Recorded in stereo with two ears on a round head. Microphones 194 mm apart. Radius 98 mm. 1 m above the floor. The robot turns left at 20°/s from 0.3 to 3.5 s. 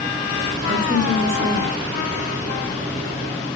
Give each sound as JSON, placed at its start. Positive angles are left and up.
{"t": 0.7, "sound": "a woman speaking", "side_deg": -15, "distance_m": 1.5}